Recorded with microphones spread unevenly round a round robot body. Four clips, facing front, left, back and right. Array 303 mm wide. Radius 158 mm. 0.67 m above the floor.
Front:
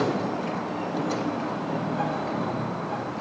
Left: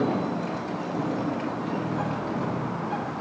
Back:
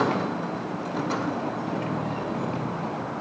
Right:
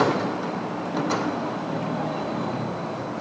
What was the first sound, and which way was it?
Only background noise.